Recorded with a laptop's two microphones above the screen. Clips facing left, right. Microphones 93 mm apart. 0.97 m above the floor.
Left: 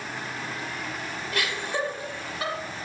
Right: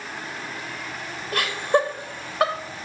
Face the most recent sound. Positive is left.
turn(degrees=-70)  # may be behind; listen again after turning